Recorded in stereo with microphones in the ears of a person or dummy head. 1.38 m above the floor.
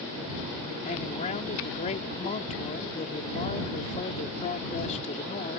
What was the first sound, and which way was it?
A man speaking, 35° left (ahead or behind).